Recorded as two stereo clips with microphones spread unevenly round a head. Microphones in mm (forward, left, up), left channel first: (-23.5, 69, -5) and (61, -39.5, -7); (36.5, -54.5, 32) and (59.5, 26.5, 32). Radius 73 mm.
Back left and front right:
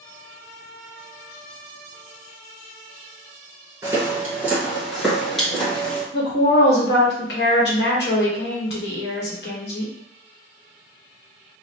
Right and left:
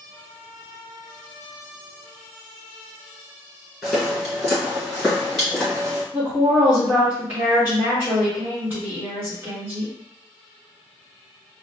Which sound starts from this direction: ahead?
Footsteps, at 3.8 s.